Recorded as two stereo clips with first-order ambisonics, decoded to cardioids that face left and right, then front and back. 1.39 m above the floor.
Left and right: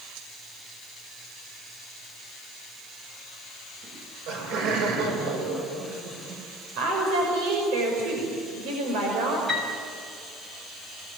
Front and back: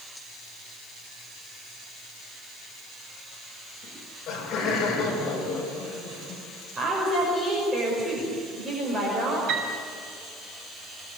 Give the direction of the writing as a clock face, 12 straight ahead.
No writing in this recording.